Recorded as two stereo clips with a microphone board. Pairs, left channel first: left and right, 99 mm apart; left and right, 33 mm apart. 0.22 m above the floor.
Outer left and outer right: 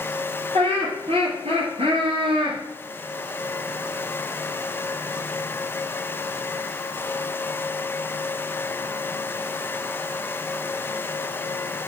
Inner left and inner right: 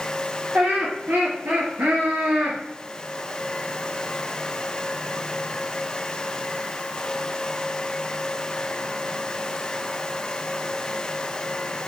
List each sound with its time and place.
0.5 s laughter: 75° right (ahead or behind), 4.5 m; by 2.6 s 65° right (ahead or behind), 2.5 m